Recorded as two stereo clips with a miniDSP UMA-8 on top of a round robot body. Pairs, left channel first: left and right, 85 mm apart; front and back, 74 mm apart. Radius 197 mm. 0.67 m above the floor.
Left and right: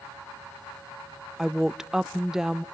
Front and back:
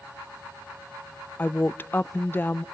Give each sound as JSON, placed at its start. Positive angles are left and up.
{"t": 1.4, "sound": "a woman speaking", "azimuth_deg": -15, "distance_m": 0.6}